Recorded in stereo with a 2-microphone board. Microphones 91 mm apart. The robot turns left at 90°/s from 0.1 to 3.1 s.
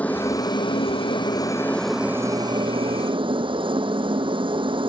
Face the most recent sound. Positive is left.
turn(degrees=-65)  # may be behind; listen again after turning